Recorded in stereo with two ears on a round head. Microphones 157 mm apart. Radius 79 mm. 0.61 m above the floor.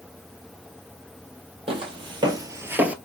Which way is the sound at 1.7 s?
30° right (ahead or behind).